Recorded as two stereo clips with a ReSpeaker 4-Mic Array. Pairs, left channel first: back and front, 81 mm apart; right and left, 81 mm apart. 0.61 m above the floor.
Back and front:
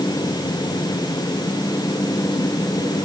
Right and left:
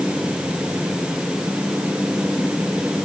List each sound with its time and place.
Only background noise.